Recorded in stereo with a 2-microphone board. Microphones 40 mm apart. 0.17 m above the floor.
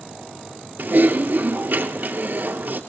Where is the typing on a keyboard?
50° right (ahead or behind), 2 m.